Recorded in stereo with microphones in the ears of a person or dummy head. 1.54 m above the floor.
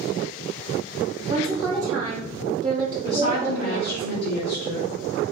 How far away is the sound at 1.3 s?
About 0.8 m.